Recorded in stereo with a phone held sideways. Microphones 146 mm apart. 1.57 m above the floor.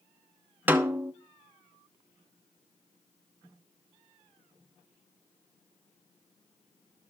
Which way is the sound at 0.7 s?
10° right (ahead or behind).